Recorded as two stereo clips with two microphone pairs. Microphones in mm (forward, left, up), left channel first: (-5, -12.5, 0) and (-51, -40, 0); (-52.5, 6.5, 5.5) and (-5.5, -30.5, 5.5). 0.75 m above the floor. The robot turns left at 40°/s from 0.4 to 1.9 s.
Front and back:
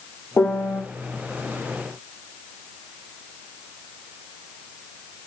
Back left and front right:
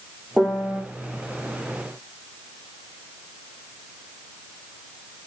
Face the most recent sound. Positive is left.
turn(degrees=-15)